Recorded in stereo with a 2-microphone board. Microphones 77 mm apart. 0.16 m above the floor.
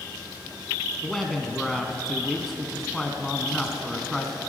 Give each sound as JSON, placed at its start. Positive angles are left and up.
{"t": 1.0, "sound": "a man speaking", "side_deg": 5, "distance_m": 1.0}